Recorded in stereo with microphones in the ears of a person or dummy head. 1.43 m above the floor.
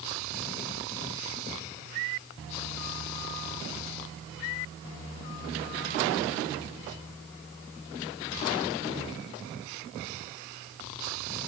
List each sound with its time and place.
Only background noise.